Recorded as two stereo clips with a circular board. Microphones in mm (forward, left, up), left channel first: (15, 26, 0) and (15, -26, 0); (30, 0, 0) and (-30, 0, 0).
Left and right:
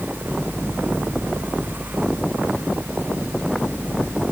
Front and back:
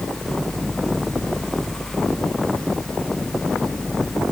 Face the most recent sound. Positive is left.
No sound to turn to.